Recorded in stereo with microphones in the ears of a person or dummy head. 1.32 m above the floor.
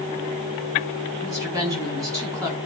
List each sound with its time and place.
1.2 s a woman speaking: 20° right (ahead or behind), 5.5 m